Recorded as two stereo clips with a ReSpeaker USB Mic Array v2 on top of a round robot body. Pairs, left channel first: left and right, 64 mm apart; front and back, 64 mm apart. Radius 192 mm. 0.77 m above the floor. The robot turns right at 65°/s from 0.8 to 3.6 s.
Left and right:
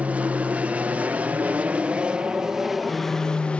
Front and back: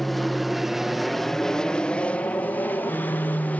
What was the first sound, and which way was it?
An aircraft, 85° right.